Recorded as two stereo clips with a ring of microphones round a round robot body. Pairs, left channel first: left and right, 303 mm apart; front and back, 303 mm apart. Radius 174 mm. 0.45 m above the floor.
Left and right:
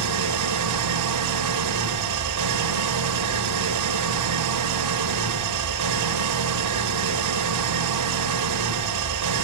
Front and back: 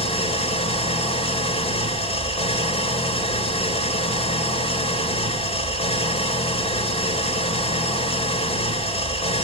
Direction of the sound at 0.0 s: 70° right.